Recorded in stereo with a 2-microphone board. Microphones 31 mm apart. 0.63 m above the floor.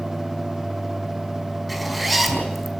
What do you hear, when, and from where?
1.7 s a zipper: centre (ahead or behind), 4.5 m